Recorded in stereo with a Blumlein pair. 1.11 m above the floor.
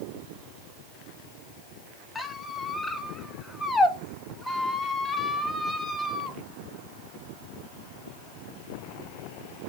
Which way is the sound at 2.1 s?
10° left.